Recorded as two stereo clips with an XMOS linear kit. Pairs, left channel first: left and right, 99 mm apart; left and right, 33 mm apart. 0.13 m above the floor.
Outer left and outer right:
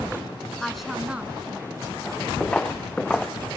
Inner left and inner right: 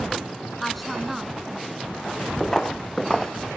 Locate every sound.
0.6 s a woman speaking: 5° left (ahead or behind), 1.0 m; by 2.3 s 20° right (ahead or behind), 2 m
2.4 s footsteps: 10° left (ahead or behind), 0.7 m